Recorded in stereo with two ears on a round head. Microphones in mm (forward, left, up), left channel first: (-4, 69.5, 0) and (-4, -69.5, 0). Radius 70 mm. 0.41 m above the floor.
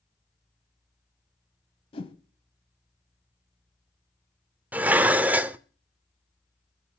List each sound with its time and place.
1.9 s a whoosh: 35° left (ahead or behind), 1.3 m
4.7 s dishes clattering: 10° right (ahead or behind), 0.6 m